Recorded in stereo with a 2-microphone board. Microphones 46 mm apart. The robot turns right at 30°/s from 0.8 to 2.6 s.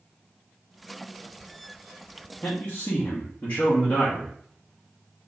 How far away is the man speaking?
About 1.6 m.